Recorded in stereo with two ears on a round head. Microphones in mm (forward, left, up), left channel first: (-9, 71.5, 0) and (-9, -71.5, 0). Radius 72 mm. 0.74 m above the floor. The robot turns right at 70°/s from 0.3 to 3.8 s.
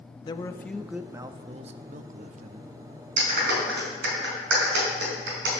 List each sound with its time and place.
0.2 s a man speaking: 145° left, 0.6 m; by 2.7 s 50° right, 0.6 m
3.2 s a clap: 55° right (ahead or behind), 5 m; by 5.5 s 80° right, 5 m